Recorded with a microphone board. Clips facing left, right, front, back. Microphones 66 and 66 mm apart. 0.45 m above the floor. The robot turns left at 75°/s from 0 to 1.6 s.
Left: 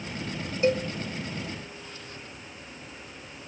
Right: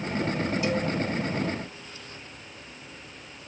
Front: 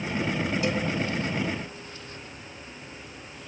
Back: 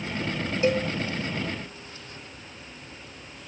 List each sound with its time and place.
0.6 s a cowbell: 130° left, 1.5 m; by 0.9 s 110° left, 1.5 m